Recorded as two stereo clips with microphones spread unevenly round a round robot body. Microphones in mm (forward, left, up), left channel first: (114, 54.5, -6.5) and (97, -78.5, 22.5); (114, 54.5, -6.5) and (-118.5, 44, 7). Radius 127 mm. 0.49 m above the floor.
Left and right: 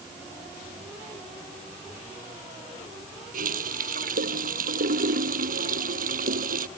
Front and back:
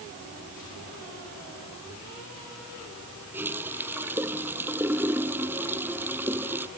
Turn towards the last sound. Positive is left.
turn(degrees=-95)